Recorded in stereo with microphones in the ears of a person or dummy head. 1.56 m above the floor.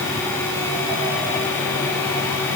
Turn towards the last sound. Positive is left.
No sound to turn to.